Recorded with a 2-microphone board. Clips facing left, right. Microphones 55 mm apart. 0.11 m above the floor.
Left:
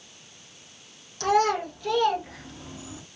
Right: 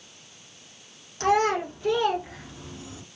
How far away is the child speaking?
About 1.4 m.